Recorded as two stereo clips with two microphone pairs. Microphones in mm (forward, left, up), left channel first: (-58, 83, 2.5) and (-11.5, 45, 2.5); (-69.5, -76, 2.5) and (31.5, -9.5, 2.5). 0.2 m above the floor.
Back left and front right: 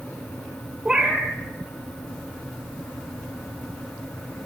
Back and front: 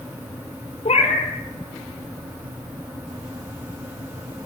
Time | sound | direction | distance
0.8 | a cat meowing | 120° right | 1.3 m